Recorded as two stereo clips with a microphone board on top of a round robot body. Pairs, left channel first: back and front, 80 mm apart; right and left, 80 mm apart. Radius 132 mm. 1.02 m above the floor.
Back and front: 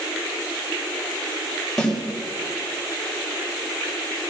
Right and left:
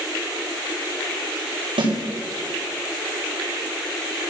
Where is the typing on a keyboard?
No typing on a keyboard in this recording.